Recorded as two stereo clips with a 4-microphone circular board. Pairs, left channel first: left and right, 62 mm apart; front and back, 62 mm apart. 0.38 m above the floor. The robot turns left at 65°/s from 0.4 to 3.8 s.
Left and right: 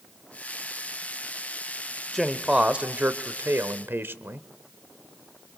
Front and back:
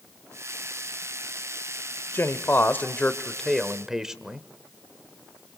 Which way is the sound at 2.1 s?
5° left.